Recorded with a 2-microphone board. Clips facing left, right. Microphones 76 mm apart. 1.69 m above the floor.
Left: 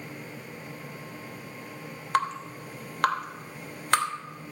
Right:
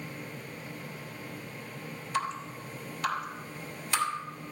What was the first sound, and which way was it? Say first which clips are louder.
Dripping: left 6 dB; 60° left (ahead or behind).